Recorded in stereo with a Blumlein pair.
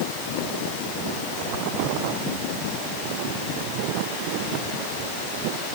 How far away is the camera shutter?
No camera shutter in this recording.